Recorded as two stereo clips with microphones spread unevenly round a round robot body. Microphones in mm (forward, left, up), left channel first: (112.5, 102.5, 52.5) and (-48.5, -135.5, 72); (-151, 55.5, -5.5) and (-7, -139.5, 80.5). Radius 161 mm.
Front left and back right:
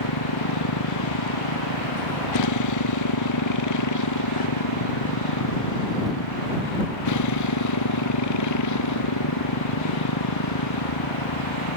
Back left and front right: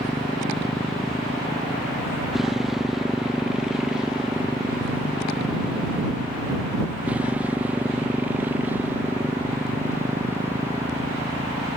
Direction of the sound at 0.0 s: 35° left.